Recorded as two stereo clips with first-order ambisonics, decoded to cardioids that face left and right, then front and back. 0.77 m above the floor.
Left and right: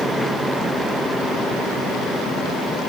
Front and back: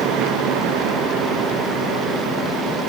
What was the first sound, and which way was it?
Only background noise.